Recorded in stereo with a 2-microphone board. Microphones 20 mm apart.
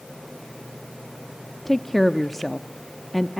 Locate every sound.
1.6 s a woman speaking: 15° left (ahead or behind), 0.8 m